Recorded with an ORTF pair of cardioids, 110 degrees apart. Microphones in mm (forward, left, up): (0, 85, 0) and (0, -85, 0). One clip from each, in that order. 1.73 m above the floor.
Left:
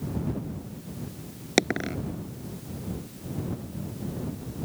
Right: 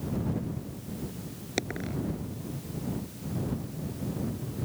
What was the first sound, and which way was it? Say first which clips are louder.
A dropped coin: left 9 dB; 50° left.